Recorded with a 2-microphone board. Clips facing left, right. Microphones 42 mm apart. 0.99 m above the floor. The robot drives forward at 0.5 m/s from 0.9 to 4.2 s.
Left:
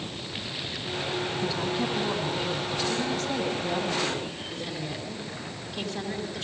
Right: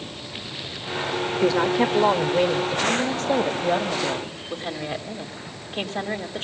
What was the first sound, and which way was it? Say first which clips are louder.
A woman speaking: right 12 dB; 70° right (ahead or behind).